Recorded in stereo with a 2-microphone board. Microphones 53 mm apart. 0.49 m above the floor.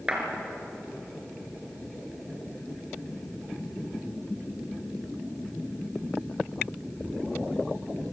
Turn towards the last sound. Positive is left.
turn(degrees=-20)  # may be behind; listen again after turning